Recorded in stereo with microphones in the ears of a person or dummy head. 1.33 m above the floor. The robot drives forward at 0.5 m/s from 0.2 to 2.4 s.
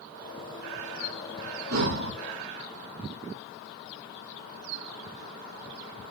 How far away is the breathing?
About 0.5 m.